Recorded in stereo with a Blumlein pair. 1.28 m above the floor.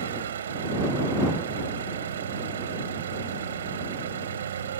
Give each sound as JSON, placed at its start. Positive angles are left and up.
{"t": 0.0, "sound": "an engine running", "azimuth_deg": -65}